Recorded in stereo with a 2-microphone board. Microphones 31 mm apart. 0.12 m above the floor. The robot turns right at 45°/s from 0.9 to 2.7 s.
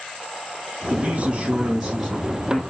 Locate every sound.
0.9 s a man speaking: 55° right, 2.5 m; by 2.6 s 25° left, 2.5 m